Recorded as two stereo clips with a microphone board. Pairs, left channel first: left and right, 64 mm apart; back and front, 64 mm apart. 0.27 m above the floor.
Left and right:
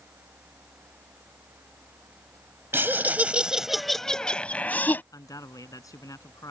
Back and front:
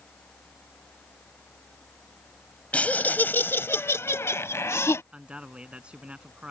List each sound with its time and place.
2.7 s laughter: 120° right; by 5.0 s 145° left
5.1 s a man speaking: 75° left